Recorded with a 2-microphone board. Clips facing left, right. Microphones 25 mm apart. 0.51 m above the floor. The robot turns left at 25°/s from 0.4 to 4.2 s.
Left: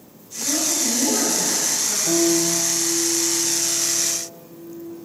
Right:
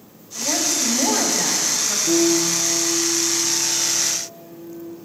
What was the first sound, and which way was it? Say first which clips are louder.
A woman speaking: right 1 dB; 115° right.